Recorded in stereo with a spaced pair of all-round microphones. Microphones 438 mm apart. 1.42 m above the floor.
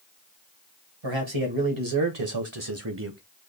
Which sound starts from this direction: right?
A man speaking, at 1.0 s.